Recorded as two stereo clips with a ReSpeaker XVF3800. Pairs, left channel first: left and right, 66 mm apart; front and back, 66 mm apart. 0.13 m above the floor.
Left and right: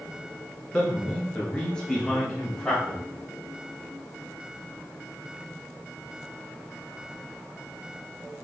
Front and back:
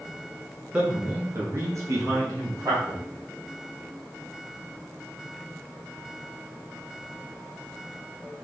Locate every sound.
0.7 s a man speaking: 130° left, 1.1 m; by 3.0 s 170° left, 3 m